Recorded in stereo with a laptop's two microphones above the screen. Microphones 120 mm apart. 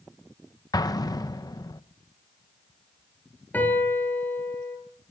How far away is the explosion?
About 0.8 m.